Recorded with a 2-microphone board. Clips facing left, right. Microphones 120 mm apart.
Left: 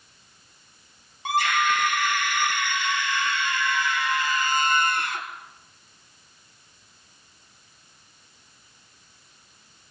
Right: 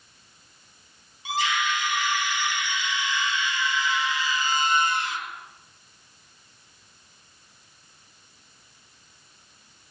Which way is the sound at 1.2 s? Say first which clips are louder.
Left 4 dB; 50° left (ahead or behind).